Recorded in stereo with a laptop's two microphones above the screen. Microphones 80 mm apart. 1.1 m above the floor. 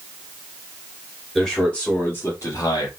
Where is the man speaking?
10° left (ahead or behind), 2.5 m; by 2.9 s 65° left (ahead or behind), 1.5 m.